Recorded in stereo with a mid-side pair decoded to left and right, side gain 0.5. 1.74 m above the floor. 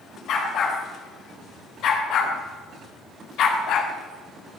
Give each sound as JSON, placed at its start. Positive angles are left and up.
{"t": 0.3, "sound": "a dog barking", "azimuth_deg": 65, "distance_m": 4.0}